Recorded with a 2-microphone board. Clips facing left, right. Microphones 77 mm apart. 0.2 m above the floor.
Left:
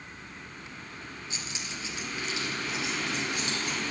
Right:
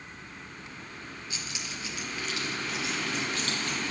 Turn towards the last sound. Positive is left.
turn(degrees=15)  # may be behind; listen again after turning